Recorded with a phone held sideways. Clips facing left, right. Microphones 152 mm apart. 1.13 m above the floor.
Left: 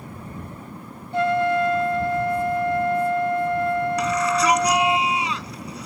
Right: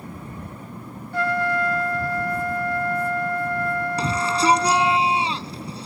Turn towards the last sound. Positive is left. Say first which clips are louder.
# left 2 dB
turn(degrees=-30)  # may be behind; listen again after turning